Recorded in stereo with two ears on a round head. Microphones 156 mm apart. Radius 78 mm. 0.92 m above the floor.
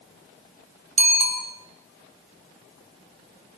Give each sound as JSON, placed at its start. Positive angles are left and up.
{"t": 1.0, "sound": "a bicycle bell", "side_deg": -40, "distance_m": 4.5}